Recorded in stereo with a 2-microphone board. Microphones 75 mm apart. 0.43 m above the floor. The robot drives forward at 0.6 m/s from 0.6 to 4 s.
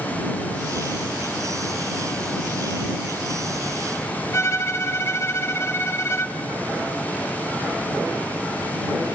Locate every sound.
4.3 s a violin: 40° left (ahead or behind), 0.5 m